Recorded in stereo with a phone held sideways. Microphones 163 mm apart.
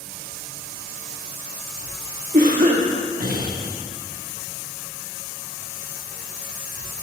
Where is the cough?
60° right (ahead or behind), 1.5 m.